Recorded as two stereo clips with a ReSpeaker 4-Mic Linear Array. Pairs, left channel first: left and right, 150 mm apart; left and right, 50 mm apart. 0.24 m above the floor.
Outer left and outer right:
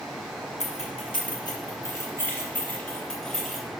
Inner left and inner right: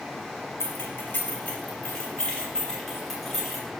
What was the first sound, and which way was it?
Keys jangling, 50° left (ahead or behind).